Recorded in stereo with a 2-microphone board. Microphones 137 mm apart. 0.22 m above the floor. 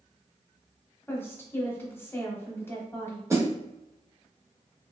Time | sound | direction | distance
1.1 | a woman speaking | 20° left (ahead or behind) | 0.9 m
3.3 | a snare drum | 25° right (ahead or behind) | 0.7 m